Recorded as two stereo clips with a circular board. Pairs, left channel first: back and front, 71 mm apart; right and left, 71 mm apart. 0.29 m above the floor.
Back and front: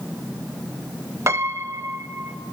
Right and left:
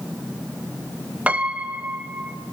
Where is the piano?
25° left, 0.5 m.